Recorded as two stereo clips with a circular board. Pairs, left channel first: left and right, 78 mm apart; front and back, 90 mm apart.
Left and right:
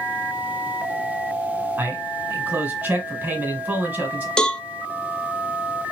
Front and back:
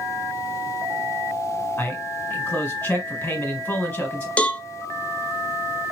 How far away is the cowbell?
About 0.6 m.